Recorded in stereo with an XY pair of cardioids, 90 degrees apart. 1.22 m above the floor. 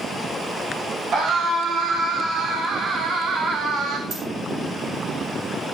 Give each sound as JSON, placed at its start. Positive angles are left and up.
{"t": 1.1, "sound": "a scream", "azimuth_deg": -70, "distance_m": 8.0}
{"t": 4.1, "sound": "a dropped coin", "azimuth_deg": -65, "distance_m": 7.0}